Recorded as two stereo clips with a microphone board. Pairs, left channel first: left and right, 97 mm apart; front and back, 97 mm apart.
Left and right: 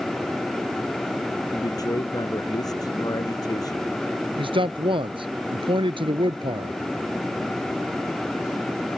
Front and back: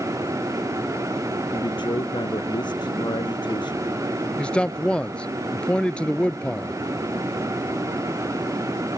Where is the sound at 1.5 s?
40° left.